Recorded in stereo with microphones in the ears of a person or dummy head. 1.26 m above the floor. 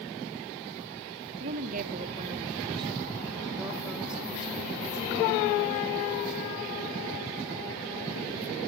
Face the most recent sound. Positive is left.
turn(degrees=15)  # may be behind; listen again after turning